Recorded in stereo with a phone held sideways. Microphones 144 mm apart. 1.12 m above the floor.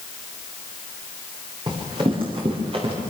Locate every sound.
1.7 s running footsteps: 35° right (ahead or behind), 7 m; by 3.0 s 40° right (ahead or behind), 8 m